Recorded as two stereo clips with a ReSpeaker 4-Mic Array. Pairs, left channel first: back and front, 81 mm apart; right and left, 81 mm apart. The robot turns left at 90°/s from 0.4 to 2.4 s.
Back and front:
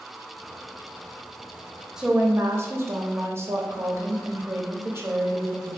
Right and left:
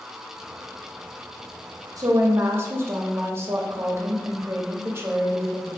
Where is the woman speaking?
80° left, 0.6 m; by 5.8 s 40° left, 0.6 m.